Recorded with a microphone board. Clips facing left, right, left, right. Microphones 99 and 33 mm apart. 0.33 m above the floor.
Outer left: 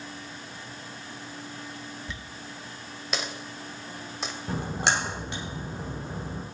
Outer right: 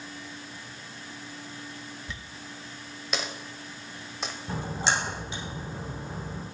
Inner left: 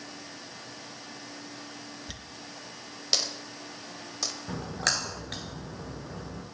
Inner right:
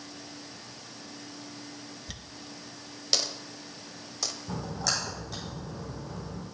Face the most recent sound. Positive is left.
turn(degrees=65)  # may be behind; listen again after turning